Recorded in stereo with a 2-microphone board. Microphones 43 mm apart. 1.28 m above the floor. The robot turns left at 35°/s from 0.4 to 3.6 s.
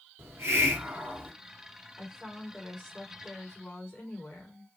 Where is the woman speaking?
165° right, 2.5 m; by 4.7 s 140° left, 2.5 m.